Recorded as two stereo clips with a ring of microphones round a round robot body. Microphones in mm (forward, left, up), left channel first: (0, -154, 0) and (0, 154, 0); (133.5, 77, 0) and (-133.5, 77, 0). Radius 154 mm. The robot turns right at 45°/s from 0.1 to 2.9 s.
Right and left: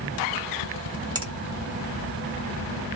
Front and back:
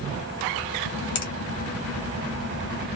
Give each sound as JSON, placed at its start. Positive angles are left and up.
{"t": 1.1, "sound": "a finger snap", "azimuth_deg": 15, "distance_m": 1.5}